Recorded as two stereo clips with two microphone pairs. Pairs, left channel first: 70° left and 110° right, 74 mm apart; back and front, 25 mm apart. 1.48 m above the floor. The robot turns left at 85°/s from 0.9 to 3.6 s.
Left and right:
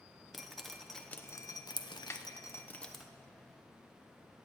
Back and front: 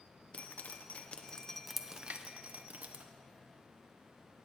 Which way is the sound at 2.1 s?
15° left.